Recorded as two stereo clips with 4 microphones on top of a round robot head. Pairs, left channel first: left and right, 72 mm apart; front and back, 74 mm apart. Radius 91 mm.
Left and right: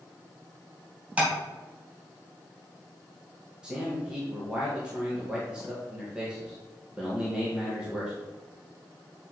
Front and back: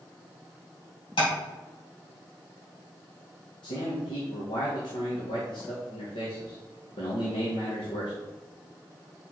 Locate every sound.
1.2 s tapping: 20° right, 3 m
3.6 s a man speaking: 10° right, 1.8 m